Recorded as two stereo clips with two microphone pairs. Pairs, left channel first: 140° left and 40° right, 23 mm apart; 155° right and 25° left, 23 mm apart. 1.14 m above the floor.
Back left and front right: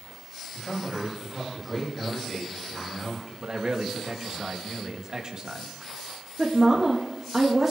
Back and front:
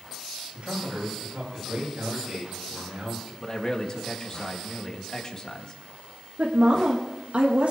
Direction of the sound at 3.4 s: 100° right.